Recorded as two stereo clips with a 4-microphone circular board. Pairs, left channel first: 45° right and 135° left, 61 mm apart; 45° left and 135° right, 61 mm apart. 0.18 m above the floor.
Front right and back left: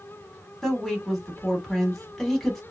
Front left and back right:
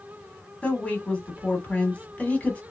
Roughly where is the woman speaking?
Ahead left.